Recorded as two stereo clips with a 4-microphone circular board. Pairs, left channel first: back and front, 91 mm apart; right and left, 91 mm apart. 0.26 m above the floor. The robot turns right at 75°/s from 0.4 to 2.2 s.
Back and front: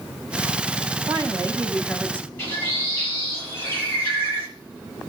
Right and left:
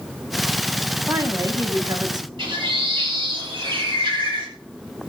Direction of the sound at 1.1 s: 25° left.